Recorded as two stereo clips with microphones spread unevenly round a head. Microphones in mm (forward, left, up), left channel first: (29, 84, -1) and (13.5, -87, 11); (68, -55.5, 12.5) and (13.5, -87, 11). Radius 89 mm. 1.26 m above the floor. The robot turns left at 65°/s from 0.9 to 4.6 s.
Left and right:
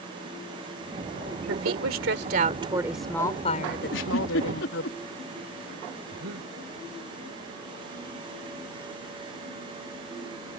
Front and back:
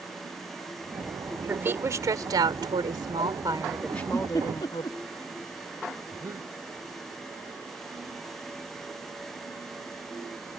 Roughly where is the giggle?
Behind left.